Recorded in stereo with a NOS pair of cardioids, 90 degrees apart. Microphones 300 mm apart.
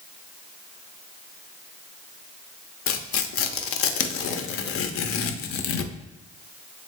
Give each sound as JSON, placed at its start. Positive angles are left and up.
{"t": 2.9, "sound": "tearing paper", "azimuth_deg": 50, "distance_m": 0.5}